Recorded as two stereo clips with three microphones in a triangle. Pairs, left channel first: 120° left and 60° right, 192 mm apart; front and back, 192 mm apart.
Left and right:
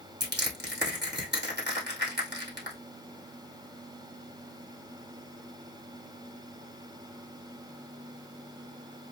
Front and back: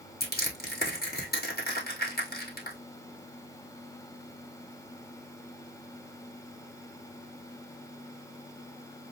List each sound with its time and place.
0.2 s crushing: 35° right, 2 m